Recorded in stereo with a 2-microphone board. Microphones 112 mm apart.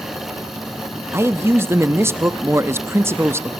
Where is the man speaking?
25° right (ahead or behind), 0.7 m.